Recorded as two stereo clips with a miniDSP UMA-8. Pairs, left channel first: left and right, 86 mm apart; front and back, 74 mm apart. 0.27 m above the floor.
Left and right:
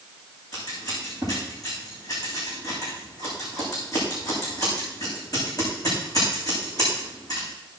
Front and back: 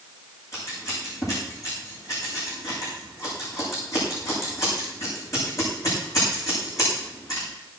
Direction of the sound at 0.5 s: 45° left.